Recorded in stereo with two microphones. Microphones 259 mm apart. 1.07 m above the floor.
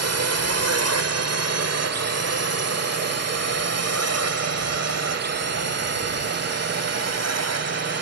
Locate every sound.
0.0 s a drone: 65° right (ahead or behind)